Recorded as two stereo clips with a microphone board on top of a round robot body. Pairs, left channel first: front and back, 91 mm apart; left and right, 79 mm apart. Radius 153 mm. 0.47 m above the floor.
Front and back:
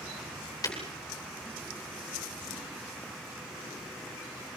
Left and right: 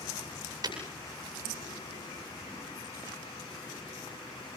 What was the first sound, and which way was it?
Breaking glass, 50° right.